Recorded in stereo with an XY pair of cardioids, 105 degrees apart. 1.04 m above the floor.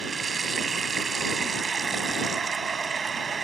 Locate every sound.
0.0 s running water: 35° right